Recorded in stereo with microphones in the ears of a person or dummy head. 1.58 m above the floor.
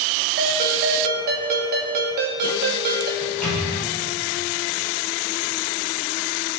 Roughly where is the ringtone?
Right.